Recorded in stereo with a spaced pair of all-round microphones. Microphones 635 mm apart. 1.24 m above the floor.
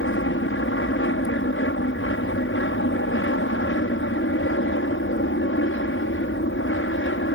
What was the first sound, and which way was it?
An aircraft, 20° left (ahead or behind).